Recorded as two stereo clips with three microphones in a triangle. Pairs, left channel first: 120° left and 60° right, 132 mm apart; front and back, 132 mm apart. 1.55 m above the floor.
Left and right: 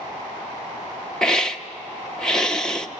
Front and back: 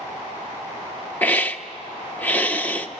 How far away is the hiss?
About 0.9 m.